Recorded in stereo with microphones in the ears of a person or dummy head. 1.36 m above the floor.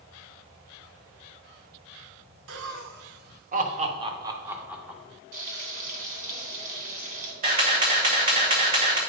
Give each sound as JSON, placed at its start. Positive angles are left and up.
{"t": 2.5, "sound": "laughter", "side_deg": -75, "distance_m": 1.3}
{"t": 5.3, "sound": "frying", "side_deg": -45, "distance_m": 3.0}
{"t": 7.4, "sound": "a camera shutter", "side_deg": -50, "distance_m": 2.0}